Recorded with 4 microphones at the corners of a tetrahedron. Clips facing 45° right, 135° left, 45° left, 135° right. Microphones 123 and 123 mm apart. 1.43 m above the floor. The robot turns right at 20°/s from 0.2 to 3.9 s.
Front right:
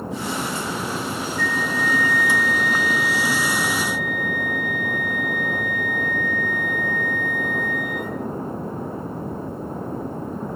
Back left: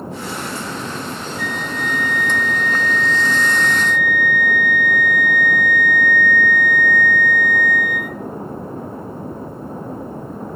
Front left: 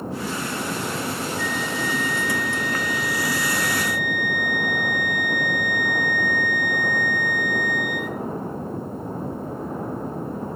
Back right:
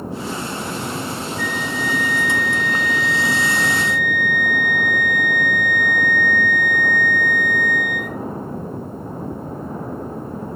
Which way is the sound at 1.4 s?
155° right.